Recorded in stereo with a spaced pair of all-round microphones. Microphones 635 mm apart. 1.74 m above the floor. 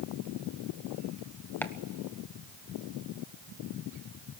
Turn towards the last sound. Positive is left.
turn(degrees=5)  # may be behind; listen again after turning